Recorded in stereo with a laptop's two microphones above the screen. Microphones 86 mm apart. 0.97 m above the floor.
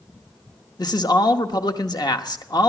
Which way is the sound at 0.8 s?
50° left (ahead or behind).